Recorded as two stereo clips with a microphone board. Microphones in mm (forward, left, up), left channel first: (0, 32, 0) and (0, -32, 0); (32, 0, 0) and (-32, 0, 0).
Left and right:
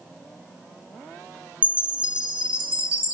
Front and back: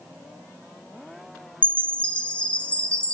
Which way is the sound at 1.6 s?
40° right.